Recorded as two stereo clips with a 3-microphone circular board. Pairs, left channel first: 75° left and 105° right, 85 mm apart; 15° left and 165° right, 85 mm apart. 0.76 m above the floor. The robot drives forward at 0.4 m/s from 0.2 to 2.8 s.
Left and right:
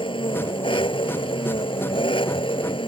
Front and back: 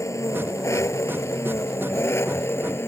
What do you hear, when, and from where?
0.0 s an engine running: 70° left; by 2.9 s 75° left